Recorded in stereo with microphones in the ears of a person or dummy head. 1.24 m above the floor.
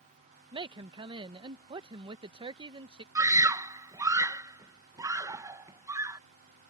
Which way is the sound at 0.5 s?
25° right (ahead or behind).